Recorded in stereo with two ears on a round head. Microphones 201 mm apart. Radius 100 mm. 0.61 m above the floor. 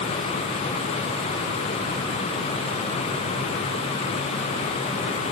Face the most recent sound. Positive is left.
No sound to turn to.